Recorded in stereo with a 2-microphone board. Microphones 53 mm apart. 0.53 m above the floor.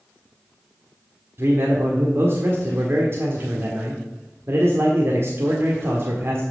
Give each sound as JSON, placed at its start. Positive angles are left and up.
{"t": 1.4, "sound": "a man speaking", "side_deg": -50, "distance_m": 1.5}